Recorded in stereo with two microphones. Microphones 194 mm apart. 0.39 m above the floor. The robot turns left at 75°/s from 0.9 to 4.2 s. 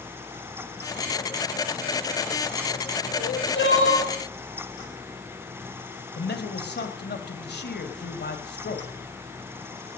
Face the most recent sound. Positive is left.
turn(degrees=60)  # may be behind; listen again after turning